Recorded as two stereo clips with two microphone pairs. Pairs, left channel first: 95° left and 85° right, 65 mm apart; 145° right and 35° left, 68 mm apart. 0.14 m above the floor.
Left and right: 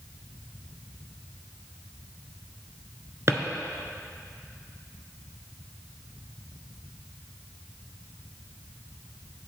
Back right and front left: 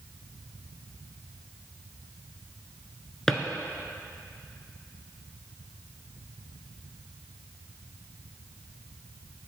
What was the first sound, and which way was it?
A drawer, 65° right.